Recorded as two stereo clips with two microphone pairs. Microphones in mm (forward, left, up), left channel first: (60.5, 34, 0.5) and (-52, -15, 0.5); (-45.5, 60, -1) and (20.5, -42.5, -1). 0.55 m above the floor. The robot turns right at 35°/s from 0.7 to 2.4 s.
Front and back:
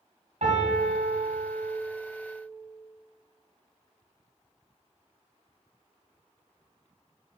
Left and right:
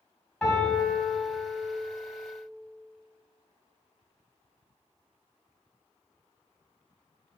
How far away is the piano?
About 3 m.